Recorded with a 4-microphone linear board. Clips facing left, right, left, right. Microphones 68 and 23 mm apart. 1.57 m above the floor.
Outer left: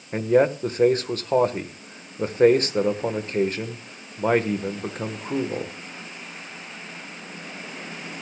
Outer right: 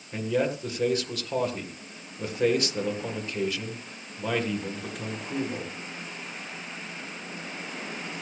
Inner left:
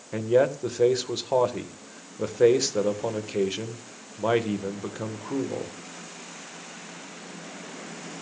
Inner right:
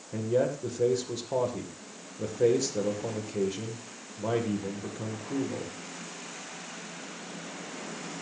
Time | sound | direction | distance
0.1 | a man speaking | 40° left (ahead or behind) | 1.5 m